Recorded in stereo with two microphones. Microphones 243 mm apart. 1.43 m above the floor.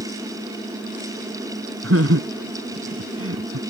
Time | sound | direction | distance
1.8 | laughter | 65° right (ahead or behind) | ?